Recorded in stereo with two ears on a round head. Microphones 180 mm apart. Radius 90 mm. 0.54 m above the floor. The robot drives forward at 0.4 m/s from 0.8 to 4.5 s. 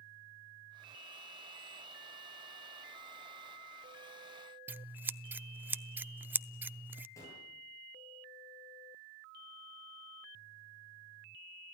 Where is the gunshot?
15° left (ahead or behind), 10 m.